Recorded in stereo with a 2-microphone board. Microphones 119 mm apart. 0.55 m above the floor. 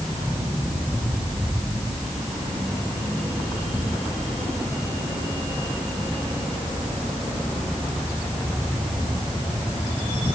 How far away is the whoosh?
No whoosh in this recording.